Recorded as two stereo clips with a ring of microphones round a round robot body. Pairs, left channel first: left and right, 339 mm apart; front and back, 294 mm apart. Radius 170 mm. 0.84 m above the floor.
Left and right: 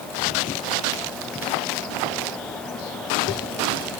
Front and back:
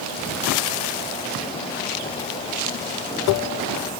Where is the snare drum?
I don't hear a snare drum.